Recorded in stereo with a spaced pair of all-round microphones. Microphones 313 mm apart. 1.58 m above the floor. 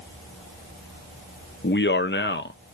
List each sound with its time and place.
1.6 s a man speaking: 35° left (ahead or behind), 0.7 m